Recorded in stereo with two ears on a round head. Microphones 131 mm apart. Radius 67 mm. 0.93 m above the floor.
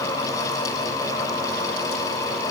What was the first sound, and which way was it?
Only background noise.